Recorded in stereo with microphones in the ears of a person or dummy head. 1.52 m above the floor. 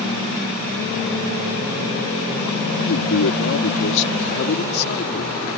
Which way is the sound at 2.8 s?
85° left.